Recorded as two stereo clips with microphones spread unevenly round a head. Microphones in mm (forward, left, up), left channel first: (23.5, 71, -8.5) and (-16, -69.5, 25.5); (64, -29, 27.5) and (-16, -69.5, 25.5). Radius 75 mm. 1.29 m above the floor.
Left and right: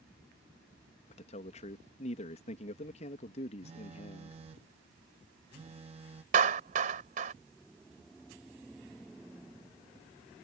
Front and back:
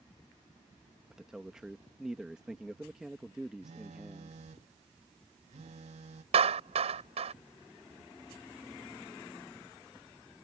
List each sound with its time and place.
1.1 s a man speaking: 120° left
3.6 s a phone buzzing: 160° right
6.3 s a clap: 145° right